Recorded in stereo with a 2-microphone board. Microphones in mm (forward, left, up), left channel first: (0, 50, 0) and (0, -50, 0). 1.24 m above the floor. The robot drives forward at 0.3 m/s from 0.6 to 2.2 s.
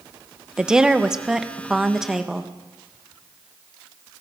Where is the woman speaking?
10° right (ahead or behind), 1.0 m; by 2.5 s 5° right (ahead or behind), 1.5 m.